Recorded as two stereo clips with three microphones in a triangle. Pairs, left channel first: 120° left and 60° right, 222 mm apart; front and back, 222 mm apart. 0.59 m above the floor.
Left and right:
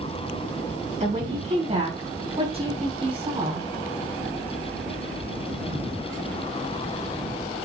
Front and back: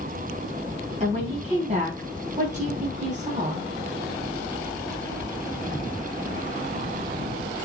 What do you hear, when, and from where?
1.0 s a woman speaking: 120° right, 5 m; by 3.7 s 125° right, 4 m